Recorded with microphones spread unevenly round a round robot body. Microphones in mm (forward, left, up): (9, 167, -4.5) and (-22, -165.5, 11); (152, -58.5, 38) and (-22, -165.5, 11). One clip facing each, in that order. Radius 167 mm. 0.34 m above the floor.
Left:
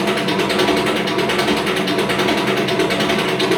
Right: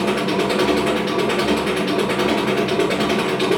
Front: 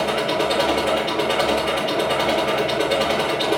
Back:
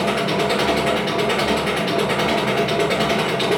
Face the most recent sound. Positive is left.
turn(degrees=155)